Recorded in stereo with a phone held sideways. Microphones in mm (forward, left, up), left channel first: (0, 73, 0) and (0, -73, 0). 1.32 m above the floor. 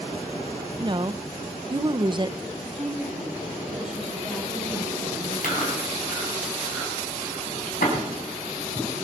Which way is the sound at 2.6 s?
5° right (ahead or behind).